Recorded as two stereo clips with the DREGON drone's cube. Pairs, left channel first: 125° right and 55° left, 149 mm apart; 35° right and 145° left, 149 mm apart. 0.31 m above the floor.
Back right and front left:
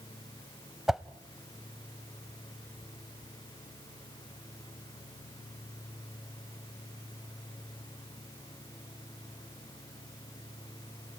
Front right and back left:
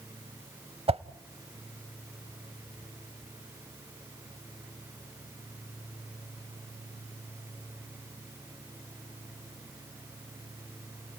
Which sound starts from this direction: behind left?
A whoosh, at 0.9 s.